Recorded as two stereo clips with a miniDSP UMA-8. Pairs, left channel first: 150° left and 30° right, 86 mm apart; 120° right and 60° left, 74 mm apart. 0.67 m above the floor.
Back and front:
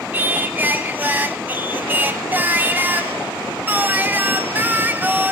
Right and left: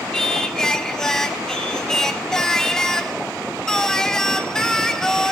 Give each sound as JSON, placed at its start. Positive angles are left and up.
{"t": 0.1, "sound": "singing", "azimuth_deg": -45, "distance_m": 0.6}